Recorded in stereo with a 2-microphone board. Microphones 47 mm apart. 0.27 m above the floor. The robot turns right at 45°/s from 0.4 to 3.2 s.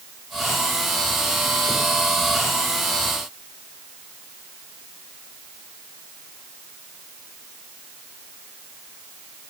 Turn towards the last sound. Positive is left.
No sound to turn to.